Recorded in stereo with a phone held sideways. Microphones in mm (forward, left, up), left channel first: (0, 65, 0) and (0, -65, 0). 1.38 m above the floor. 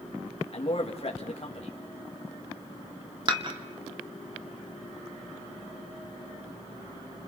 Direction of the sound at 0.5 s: 50° left (ahead or behind).